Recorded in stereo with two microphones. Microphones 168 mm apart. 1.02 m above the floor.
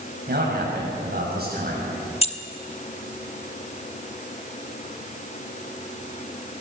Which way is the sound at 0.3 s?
65° right (ahead or behind).